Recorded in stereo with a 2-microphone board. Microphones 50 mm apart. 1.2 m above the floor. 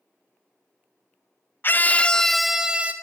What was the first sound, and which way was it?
A scream, 40° left (ahead or behind).